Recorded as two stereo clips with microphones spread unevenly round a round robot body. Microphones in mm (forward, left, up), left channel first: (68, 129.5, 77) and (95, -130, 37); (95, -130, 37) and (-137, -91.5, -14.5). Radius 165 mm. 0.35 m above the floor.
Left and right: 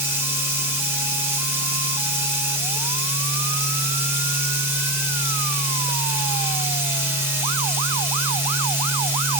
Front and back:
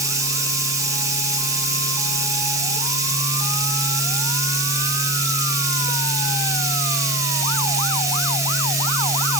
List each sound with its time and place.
0.0 s running water: 145° right, 1.0 m